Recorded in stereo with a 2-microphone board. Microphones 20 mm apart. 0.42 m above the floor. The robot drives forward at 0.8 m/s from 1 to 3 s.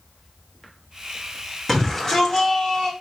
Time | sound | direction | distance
1.7 | a shout | 20° left (ahead or behind) | 1.3 m